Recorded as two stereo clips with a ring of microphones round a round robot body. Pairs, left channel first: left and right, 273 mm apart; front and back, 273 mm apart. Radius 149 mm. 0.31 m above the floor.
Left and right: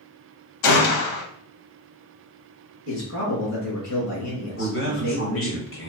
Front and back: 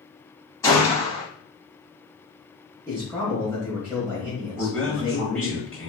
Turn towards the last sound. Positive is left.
turn(degrees=85)